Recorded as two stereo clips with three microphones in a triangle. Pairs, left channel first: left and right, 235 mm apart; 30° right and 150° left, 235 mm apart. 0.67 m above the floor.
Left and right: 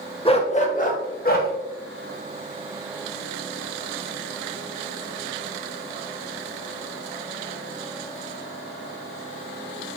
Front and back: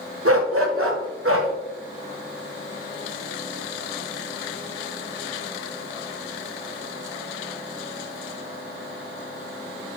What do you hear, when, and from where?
0.2 s a dog barking: 155° left, 1.0 m; by 1.5 s 135° left, 1.8 m